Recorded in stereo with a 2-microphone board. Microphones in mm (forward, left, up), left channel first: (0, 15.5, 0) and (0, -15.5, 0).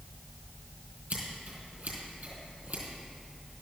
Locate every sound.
1.1 s scissors: 65° right (ahead or behind), 4 m